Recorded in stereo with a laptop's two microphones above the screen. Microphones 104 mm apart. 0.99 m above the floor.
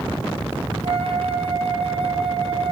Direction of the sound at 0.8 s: 60° right (ahead or behind).